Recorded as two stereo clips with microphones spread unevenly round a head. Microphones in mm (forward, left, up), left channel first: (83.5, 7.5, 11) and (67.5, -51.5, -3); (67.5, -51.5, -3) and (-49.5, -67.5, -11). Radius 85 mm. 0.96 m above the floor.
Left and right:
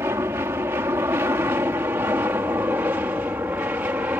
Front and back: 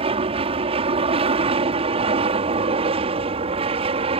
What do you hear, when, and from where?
0.0 s an aircraft: 155° right; by 4.2 s 170° right